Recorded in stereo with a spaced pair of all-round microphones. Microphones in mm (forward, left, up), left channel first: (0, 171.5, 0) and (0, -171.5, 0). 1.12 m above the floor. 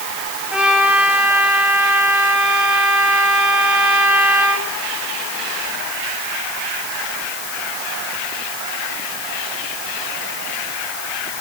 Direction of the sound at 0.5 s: 5° right (ahead or behind).